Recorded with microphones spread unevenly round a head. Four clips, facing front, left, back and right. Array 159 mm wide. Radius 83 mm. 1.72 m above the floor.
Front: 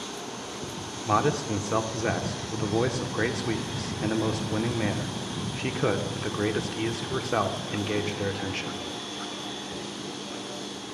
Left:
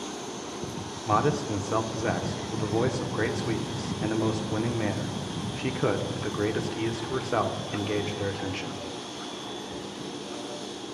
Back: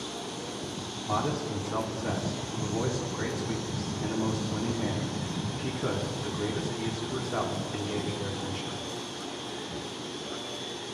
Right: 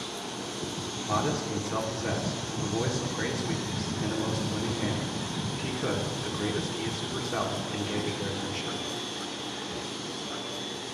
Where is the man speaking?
25° left, 0.8 m.